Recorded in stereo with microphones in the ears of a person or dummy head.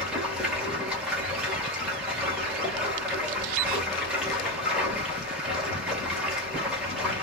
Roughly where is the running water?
Centre.